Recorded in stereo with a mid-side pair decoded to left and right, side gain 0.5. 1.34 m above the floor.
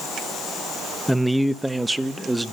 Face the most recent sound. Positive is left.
turn(degrees=-10)